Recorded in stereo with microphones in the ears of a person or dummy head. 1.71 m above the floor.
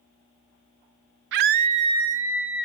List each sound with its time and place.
1.3 s a scream: 65° right (ahead or behind), 0.6 m; by 2.6 s 5° right (ahead or behind), 1.3 m